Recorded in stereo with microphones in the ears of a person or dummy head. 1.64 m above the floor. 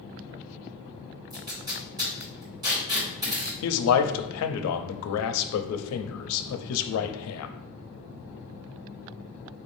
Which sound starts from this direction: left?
A man speaking, at 3.6 s.